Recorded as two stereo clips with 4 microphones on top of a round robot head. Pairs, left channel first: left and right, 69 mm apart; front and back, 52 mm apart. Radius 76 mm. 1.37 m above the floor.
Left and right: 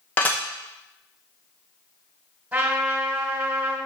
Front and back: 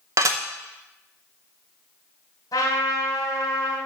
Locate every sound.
0.2 s dishes clattering: 160° left, 0.8 m
2.5 s a trumpet: 30° right, 1.9 m